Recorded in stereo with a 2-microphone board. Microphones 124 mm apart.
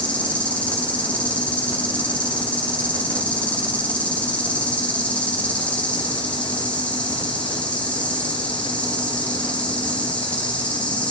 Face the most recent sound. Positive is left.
turn(degrees=10)  # may be behind; listen again after turning